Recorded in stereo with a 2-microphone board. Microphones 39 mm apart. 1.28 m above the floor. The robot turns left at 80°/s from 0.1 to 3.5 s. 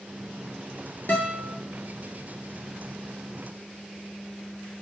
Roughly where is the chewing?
I don't hear chewing.